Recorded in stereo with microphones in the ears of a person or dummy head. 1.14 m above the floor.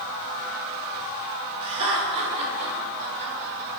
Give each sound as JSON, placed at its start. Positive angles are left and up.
{"t": 1.6, "sound": "laughter", "side_deg": -30, "distance_m": 3.0}